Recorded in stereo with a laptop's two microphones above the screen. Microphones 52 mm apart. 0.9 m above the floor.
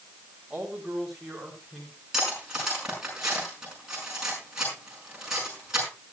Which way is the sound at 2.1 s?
15° right (ahead or behind).